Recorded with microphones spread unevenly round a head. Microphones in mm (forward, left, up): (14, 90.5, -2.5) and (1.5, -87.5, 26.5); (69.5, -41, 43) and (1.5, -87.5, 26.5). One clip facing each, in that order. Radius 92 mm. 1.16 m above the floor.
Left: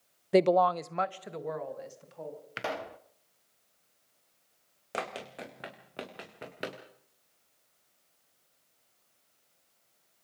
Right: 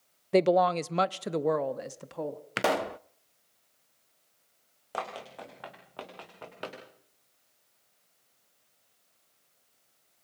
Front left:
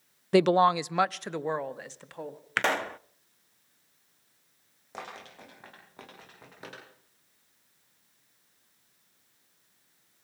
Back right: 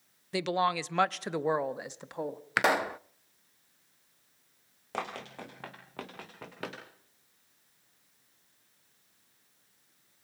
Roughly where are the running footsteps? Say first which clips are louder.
Even, back right 5 dB; behind left.